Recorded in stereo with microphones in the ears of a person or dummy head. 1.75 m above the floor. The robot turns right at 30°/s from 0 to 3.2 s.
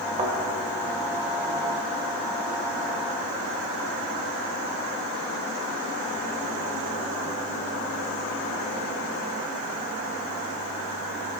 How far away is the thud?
About 2 m.